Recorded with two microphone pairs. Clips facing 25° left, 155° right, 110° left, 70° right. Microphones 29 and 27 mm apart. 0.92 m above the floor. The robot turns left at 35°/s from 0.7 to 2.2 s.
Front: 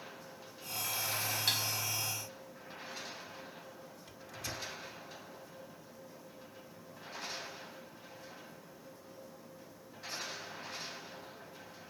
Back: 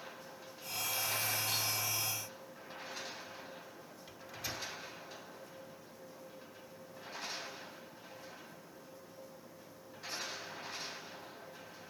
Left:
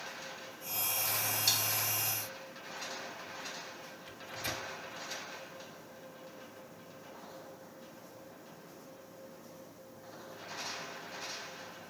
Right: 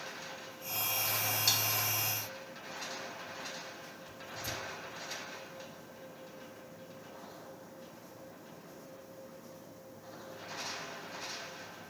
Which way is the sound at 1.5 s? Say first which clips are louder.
Front 4 dB, even; 15° left.